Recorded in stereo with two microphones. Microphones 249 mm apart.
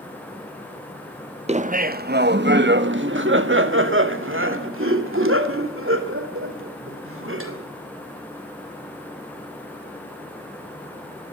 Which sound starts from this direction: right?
Laughter, at 1.5 s.